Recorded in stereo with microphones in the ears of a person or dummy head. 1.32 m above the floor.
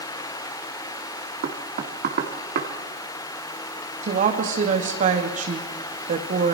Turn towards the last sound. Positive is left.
turn(degrees=-50)  # may be behind; listen again after turning